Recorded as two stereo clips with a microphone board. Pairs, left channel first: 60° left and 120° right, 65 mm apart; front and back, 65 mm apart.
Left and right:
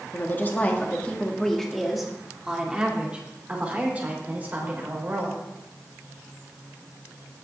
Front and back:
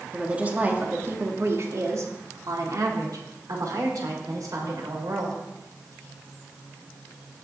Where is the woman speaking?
105° left, 1.8 m; by 5.4 s straight behind, 4 m.